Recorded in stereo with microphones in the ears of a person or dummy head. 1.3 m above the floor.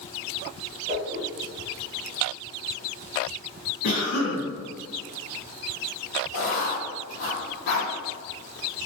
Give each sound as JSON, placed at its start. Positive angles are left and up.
{"t": 0.9, "sound": "a whoosh", "side_deg": -35, "distance_m": 0.7}
{"t": 3.8, "sound": "a cough", "side_deg": 80, "distance_m": 1.6}
{"t": 6.3, "sound": "writing", "side_deg": 55, "distance_m": 1.3}